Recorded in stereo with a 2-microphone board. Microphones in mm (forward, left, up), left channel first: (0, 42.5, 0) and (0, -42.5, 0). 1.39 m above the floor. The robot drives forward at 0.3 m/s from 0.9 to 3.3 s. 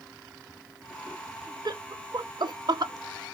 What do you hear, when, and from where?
1.6 s laughter: 50° right (ahead or behind), 0.6 m; by 2.9 s 55° right (ahead or behind), 0.5 m